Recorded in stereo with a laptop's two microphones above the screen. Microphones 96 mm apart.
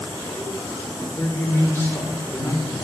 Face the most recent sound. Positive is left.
turn(degrees=25)  # may be behind; listen again after turning